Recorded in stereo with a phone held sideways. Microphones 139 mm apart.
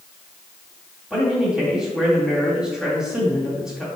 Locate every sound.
1.1 s a man speaking: 5° right (ahead or behind), 2.5 m